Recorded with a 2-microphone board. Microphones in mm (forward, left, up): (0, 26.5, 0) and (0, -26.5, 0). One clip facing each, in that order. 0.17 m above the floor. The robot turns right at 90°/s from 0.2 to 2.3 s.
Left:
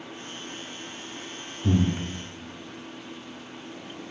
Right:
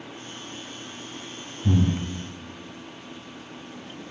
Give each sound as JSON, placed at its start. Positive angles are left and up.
{"t": 1.6, "sound": "breathing", "side_deg": 45, "distance_m": 1.3}